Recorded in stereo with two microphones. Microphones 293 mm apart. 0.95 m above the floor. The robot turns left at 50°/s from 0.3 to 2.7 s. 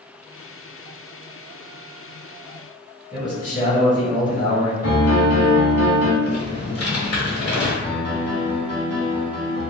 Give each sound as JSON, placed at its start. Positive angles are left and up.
{"t": 3.1, "sound": "a man speaking", "side_deg": 25, "distance_m": 1.8}
{"t": 4.8, "sound": "a piano", "side_deg": 55, "distance_m": 1.1}
{"t": 6.2, "sound": "typing on a keyboard", "side_deg": 60, "distance_m": 1.2}
{"t": 7.8, "sound": "a piano", "side_deg": 35, "distance_m": 0.8}